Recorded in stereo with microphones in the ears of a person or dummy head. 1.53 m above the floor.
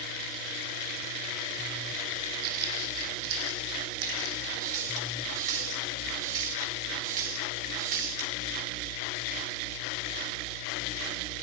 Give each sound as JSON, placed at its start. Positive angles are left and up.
{"t": 2.4, "sound": "footsteps", "side_deg": -55, "distance_m": 3.5}
{"t": 4.6, "sound": "a running tap", "side_deg": -45, "distance_m": 7.5}